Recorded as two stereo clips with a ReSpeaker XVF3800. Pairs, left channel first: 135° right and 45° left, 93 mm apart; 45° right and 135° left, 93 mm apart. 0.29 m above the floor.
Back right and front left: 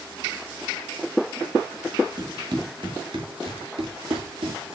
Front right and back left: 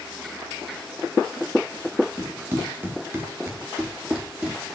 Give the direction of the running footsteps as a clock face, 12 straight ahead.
9 o'clock.